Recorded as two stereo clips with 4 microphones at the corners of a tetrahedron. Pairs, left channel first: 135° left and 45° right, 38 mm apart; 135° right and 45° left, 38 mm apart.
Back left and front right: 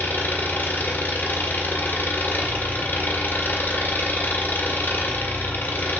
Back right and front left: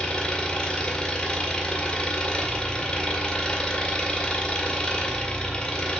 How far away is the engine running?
About 1.5 m.